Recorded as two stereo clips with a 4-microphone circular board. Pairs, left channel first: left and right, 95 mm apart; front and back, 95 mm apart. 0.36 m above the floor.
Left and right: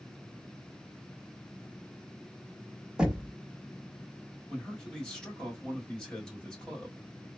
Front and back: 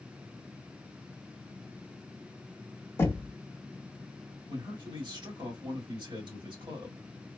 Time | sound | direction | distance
3.0 | knocking | 20° right | 1.1 m
4.5 | a man speaking | 170° left | 1.9 m